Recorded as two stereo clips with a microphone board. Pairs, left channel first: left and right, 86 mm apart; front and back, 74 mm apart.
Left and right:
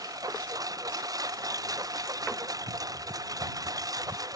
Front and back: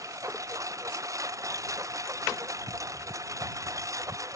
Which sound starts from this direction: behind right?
A lawn mower, at 0.0 s.